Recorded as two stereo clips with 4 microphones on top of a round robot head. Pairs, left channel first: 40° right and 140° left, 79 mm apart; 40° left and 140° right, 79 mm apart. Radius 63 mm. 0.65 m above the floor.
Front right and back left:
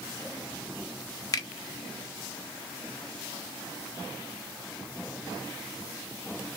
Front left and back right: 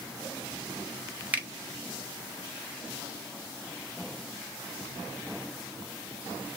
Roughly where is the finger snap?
Right.